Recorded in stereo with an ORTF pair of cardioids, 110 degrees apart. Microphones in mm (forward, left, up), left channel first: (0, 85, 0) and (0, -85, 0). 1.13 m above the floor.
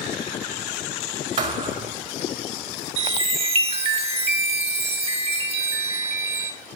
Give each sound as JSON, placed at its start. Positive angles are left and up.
{"t": 1.4, "sound": "a thud", "azimuth_deg": -50, "distance_m": 2.5}
{"t": 3.0, "sound": "a chime", "azimuth_deg": -35, "distance_m": 1.5}